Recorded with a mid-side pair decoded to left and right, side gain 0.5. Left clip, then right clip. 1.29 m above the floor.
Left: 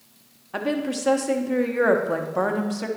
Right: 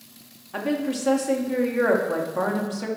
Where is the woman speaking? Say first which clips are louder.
Left 1 dB; 20° left, 1.2 m.